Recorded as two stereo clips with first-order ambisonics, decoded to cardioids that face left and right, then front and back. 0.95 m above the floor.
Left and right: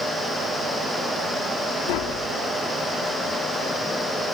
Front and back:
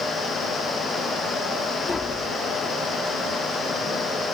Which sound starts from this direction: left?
Tapping, at 1.9 s.